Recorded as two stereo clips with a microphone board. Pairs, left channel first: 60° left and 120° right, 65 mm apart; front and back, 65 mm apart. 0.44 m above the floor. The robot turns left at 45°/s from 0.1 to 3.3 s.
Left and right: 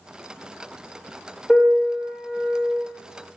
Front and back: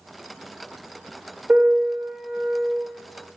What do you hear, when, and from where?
1.5 s a piano: 125° left, 1.0 m; by 2.8 s 70° left, 1.0 m